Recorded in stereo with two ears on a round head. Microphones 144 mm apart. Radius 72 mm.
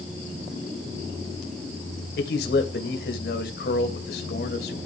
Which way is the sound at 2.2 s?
70° left (ahead or behind).